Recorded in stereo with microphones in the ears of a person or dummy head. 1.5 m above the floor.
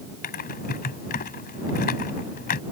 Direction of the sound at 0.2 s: 40° left (ahead or behind).